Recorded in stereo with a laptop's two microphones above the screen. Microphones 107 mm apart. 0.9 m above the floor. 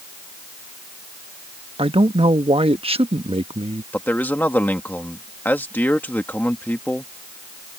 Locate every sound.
1.8 s a man speaking: 65° right (ahead or behind)
3.9 s a man speaking: 15° left (ahead or behind)